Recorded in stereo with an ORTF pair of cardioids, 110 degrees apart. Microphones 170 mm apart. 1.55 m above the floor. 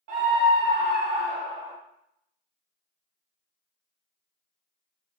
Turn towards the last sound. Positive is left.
turn(degrees=-70)